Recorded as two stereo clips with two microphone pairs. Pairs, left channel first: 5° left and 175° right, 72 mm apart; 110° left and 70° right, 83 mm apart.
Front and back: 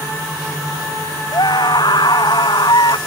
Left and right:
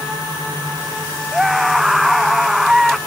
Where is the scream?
15° left.